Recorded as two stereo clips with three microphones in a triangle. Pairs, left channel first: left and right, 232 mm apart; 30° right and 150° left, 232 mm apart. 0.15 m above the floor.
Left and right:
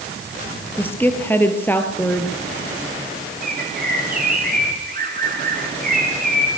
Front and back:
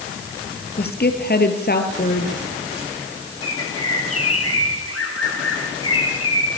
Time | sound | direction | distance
0.8 | a woman speaking | 10° left | 3 m
3.4 | a bird | 40° right | 5 m